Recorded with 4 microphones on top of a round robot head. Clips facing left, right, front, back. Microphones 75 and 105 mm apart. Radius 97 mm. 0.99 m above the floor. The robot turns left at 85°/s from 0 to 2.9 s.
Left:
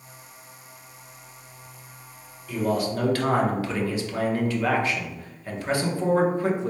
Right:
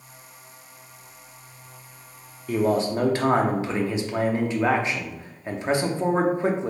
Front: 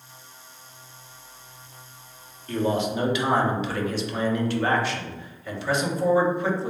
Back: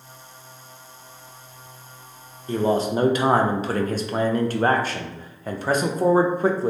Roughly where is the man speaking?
Behind right.